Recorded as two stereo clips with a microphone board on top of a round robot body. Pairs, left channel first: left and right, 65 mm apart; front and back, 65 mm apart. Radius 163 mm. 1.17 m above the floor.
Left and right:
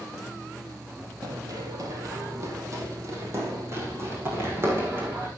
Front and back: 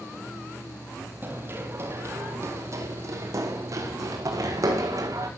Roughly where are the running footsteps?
Behind right.